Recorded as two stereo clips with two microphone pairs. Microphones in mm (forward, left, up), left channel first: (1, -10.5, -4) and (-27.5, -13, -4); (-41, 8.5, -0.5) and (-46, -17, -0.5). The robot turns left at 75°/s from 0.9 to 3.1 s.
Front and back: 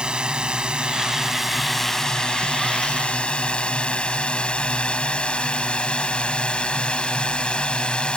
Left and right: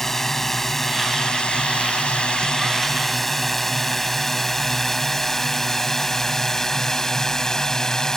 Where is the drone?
145° left; by 8.2 s 20° left.